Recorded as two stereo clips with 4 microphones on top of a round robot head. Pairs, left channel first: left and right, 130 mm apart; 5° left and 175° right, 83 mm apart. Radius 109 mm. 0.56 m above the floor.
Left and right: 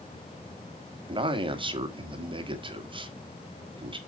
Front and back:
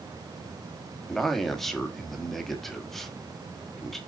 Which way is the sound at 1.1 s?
85° right.